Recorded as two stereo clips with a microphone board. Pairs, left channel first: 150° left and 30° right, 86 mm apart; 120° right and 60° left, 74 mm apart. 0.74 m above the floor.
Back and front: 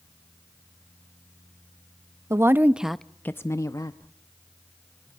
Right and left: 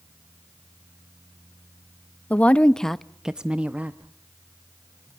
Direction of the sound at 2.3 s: 60° right.